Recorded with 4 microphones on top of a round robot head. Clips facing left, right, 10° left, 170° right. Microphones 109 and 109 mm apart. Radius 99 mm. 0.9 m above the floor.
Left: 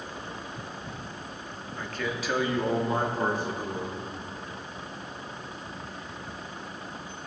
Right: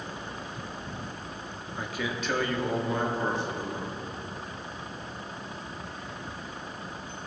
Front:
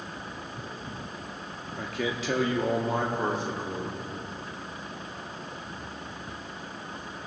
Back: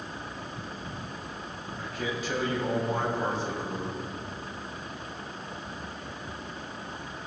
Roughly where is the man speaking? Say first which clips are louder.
Even, front 3 dB; ahead.